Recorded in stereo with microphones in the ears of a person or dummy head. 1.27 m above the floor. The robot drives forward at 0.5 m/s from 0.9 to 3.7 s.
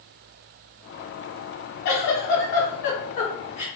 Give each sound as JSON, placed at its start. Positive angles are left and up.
{"t": 1.9, "sound": "a giggle", "side_deg": 50, "distance_m": 1.2}